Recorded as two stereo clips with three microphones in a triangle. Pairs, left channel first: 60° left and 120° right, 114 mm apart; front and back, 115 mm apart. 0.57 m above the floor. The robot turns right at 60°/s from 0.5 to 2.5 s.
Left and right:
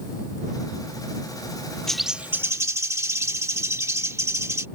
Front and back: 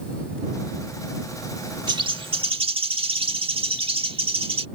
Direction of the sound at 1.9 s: 145° left.